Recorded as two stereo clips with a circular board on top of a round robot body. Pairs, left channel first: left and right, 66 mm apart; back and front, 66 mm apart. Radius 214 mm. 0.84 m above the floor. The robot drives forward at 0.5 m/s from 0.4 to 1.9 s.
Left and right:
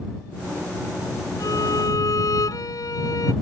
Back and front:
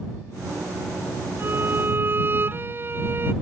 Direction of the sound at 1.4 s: 55° left.